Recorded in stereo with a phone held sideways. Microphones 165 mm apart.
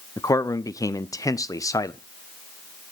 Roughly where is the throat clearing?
No throat clearing in this recording.